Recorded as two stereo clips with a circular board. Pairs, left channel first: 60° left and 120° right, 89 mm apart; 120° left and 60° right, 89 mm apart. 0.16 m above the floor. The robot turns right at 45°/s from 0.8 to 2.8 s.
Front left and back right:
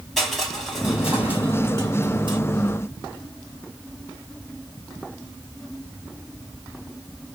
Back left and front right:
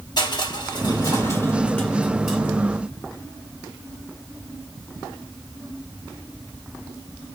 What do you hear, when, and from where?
0.2 s crushing: 150° left, 2.5 m; by 2.4 s 135° right, 2.5 m